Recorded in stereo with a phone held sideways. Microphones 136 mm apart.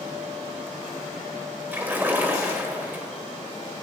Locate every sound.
1.7 s a splash: 15° right (ahead or behind), 1.9 m